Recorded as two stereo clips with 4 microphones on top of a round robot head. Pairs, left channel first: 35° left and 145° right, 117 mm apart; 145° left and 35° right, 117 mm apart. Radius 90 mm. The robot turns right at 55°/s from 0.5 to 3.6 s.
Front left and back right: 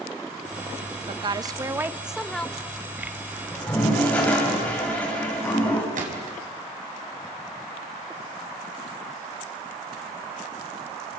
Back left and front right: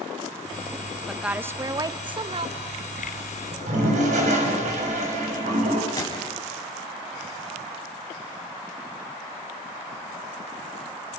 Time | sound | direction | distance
1.1 | a woman speaking | 120° right | 1.2 m
3.5 | a toilet flushing | 50° right | 6 m
6.0 | a gunshot | 150° right | 5 m